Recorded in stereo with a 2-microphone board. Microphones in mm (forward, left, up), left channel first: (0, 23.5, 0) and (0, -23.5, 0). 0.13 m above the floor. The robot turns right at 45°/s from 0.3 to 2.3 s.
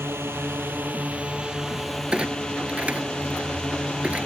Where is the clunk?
20° right (ahead or behind); by 4.3 s 30° right (ahead or behind).